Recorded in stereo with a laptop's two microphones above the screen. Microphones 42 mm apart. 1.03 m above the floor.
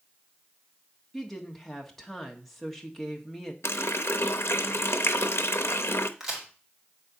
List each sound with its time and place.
1.1 s a woman speaking: 10° left (ahead or behind), 1.7 m
3.6 s a running tap: 85° left, 0.6 m
6.2 s a crack: 10° right (ahead or behind), 3 m